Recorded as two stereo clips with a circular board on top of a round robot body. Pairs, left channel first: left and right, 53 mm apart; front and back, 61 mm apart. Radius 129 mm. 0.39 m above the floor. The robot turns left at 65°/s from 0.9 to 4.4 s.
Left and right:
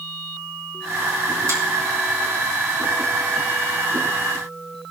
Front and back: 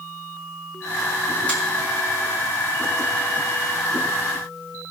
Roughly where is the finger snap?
Right.